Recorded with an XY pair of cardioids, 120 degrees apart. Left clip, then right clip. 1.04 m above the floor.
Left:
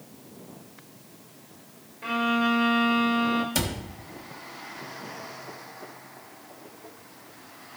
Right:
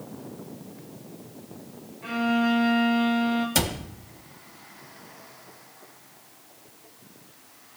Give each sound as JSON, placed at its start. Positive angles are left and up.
{"t": 2.0, "sound": "a violin", "azimuth_deg": 40, "distance_m": 1.7}
{"t": 3.5, "sound": "a cupboard door", "azimuth_deg": -20, "distance_m": 1.3}